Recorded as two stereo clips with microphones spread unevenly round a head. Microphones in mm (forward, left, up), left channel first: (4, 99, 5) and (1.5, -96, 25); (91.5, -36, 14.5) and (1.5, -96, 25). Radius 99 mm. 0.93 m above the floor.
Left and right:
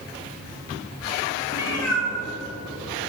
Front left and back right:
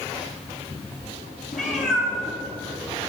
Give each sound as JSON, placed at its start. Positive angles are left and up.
{"t": 1.5, "sound": "a cat meowing", "azimuth_deg": 80, "distance_m": 2.5}